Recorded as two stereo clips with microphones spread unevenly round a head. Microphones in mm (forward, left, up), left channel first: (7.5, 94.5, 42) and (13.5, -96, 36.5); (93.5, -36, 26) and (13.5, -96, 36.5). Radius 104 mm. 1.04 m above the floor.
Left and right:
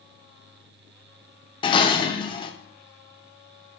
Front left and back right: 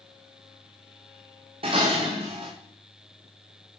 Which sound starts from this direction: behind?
Dishes clattering, at 1.6 s.